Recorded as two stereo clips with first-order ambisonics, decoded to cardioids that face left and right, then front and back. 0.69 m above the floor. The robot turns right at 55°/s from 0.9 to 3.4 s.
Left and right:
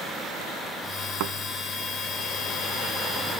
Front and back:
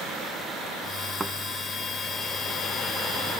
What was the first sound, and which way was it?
A thud, 105° right.